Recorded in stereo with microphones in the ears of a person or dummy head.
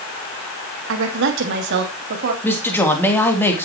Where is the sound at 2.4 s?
15° left (ahead or behind), 3 m.